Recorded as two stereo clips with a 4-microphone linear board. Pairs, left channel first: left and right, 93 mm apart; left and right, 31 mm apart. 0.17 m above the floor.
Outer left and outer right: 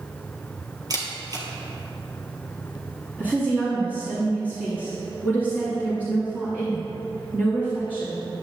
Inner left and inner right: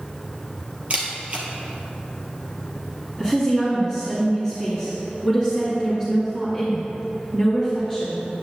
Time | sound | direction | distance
0.9 | a camera shutter | 45° right (ahead or behind) | 2 m
3.2 | a woman speaking | 20° right (ahead or behind) | 2.5 m